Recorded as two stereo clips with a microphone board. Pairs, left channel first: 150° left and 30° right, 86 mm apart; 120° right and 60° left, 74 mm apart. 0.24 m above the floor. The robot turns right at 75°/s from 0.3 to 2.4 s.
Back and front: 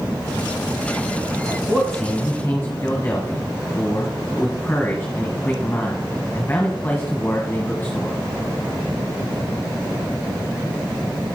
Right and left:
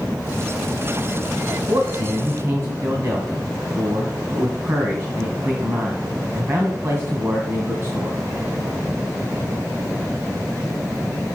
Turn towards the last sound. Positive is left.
turn(degrees=95)